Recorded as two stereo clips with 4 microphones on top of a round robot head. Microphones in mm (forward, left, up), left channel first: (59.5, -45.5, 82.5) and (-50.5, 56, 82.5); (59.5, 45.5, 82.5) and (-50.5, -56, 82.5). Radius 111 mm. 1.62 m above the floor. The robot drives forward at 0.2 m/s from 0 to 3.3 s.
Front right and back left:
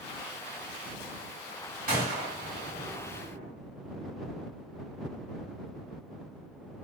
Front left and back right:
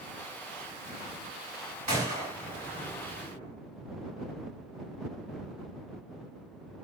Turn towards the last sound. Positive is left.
turn(degrees=175)